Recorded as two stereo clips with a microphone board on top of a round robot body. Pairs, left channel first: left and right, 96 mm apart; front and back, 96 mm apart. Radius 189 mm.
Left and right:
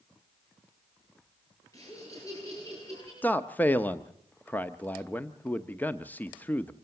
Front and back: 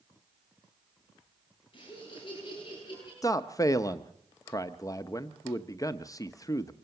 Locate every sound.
1.7 s laughter: 35° left, 9.5 m
3.2 s a man speaking: 30° left, 1.0 m